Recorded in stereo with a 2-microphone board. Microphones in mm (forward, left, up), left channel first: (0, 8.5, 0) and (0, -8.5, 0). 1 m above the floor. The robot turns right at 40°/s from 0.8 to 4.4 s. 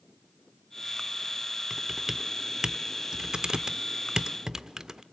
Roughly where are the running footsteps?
No running footsteps in this recording.